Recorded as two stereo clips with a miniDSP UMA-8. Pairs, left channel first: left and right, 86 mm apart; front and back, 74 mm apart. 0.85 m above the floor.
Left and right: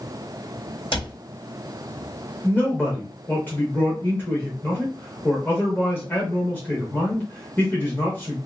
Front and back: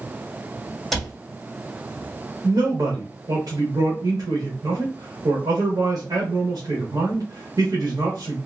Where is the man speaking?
155° left, 1.1 m.